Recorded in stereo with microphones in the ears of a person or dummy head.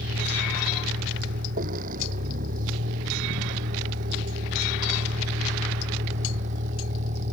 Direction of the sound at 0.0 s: 50° right (ahead or behind).